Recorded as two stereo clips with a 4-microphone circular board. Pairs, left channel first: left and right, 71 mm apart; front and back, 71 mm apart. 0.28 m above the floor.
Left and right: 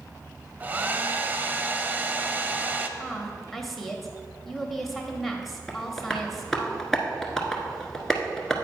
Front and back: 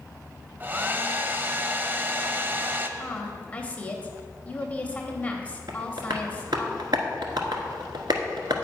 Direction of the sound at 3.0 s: 5° left.